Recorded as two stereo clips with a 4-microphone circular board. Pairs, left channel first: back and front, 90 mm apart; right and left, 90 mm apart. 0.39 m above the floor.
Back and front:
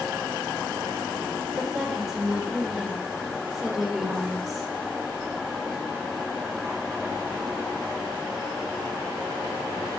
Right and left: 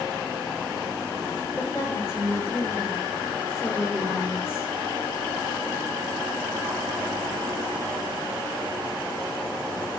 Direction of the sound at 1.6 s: 85° right.